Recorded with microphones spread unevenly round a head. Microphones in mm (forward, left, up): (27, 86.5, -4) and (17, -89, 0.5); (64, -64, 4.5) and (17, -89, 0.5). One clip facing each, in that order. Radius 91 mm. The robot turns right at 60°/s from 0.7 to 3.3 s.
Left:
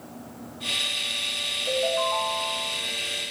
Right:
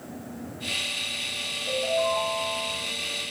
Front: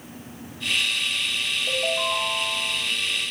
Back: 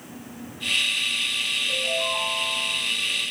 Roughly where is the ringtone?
Ahead left.